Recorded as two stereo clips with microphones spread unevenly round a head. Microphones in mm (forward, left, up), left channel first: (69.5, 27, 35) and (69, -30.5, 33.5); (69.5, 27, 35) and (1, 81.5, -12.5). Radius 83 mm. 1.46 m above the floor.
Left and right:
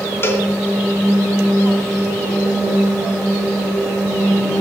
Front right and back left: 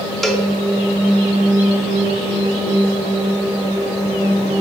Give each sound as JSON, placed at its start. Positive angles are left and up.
{"t": 0.2, "sound": "a cowbell", "azimuth_deg": 45, "distance_m": 2.5}